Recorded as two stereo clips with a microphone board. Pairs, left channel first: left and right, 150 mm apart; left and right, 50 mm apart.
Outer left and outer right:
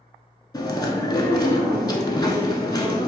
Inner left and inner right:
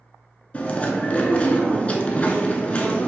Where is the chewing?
30° left (ahead or behind), 0.6 m.